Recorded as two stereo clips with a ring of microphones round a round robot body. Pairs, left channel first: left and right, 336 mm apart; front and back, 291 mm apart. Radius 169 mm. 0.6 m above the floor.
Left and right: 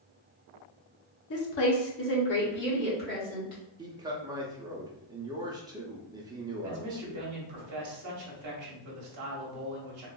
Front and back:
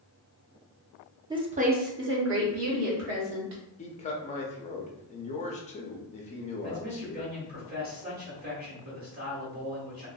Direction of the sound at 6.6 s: 120° right.